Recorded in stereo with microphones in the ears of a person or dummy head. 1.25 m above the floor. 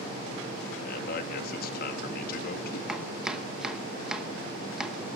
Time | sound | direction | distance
0.8 | a man speaking | 60° left (ahead or behind) | 1.4 m
2.9 | chopping | centre (ahead or behind) | 0.9 m